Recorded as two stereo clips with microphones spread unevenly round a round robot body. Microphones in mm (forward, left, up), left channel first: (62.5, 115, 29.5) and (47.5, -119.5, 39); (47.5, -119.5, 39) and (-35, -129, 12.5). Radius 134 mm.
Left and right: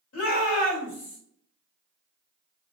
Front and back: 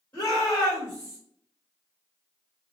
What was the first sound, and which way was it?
A shout, 95° left.